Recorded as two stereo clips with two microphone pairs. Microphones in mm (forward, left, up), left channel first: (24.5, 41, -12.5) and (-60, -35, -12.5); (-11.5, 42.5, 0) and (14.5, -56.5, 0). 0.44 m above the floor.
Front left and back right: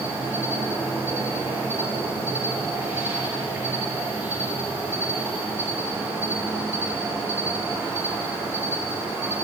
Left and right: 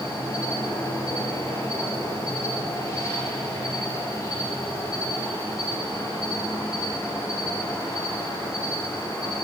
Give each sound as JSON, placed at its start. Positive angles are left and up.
{"t": 0.0, "sound": "an insect", "azimuth_deg": 155, "distance_m": 5.5}